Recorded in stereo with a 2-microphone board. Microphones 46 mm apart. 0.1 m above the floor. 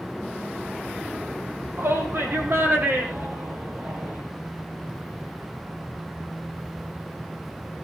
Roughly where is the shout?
Right.